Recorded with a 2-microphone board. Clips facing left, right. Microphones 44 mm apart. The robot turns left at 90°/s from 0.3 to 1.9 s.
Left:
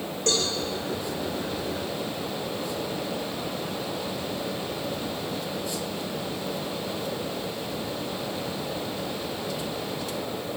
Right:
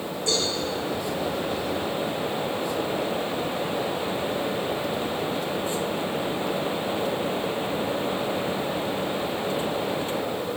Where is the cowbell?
60° left (ahead or behind), 8 m; by 0.5 s 75° left (ahead or behind), 8 m.